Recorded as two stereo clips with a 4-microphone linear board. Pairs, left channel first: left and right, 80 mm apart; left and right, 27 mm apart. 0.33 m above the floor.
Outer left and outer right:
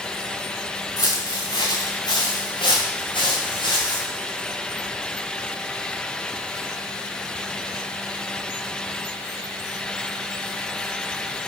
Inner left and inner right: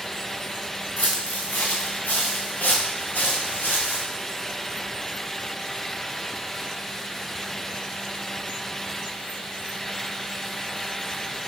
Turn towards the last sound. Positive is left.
turn(degrees=80)